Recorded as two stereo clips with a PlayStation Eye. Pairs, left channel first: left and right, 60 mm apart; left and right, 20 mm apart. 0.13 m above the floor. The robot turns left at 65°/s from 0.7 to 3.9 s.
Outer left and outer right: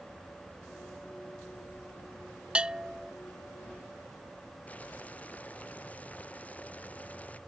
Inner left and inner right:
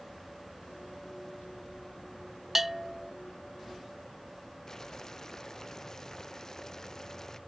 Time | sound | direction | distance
2.5 | a bell | 150° right | ?
4.7 | boiling | 20° left (ahead or behind) | ?